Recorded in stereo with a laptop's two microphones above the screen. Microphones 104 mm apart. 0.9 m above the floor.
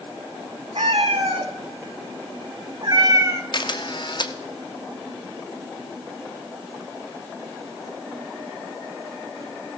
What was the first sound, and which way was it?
A cat meowing, 75° right (ahead or behind).